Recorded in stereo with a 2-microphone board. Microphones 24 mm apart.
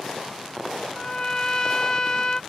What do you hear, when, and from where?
0.9 s a trumpet: 30° left (ahead or behind)